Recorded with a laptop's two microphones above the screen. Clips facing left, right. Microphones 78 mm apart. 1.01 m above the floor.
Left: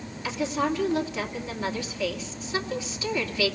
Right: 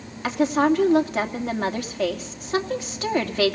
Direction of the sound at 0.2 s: 70° right (ahead or behind).